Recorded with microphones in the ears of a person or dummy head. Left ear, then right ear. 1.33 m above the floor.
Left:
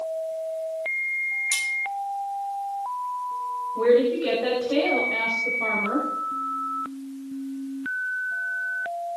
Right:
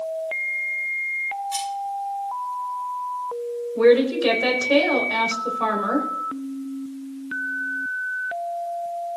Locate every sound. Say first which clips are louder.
1.5 s cutlery clinking: left 2 dB; 65° left (ahead or behind), 6.5 m
3.8 s a woman speaking: right 3 dB; 65° right (ahead or behind), 4 m